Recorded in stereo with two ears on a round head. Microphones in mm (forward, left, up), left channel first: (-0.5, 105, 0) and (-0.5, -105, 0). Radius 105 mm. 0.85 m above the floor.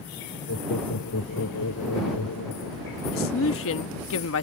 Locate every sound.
0.5 s laughter: 65° left (ahead or behind); by 3.0 s 75° left (ahead or behind)
3.1 s a man speaking: 60° left (ahead or behind)